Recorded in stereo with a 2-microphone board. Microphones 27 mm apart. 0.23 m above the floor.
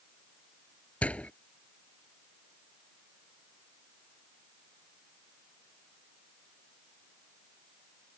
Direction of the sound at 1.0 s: 60° left (ahead or behind).